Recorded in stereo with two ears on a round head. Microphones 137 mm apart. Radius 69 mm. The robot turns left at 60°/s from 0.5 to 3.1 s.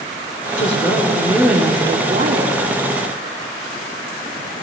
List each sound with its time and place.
0.6 s a woman speaking: 50° left, 3.5 m; by 2.5 s 70° right, 3.5 m